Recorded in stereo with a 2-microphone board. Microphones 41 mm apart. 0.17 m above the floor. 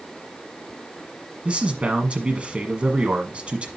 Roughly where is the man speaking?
Right.